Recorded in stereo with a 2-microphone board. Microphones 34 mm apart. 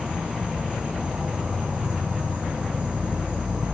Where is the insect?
35° right (ahead or behind), 1.2 m.